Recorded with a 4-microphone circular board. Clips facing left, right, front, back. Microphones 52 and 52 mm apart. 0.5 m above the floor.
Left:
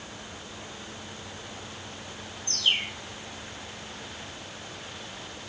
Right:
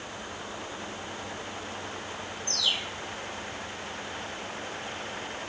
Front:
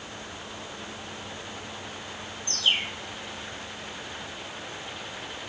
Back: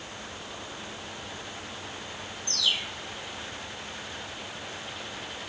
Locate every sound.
2.5 s a bird: 45° left